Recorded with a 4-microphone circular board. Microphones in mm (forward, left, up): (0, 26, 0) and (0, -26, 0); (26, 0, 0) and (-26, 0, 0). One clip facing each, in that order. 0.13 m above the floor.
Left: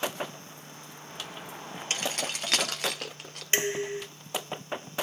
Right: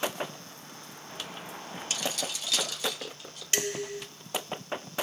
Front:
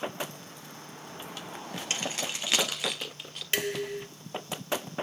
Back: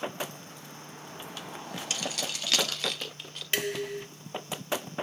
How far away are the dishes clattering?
About 0.8 m.